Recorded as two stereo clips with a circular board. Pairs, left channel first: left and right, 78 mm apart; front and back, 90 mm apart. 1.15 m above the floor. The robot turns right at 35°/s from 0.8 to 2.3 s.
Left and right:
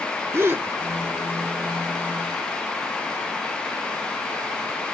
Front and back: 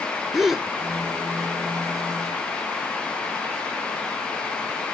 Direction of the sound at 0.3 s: 95° right.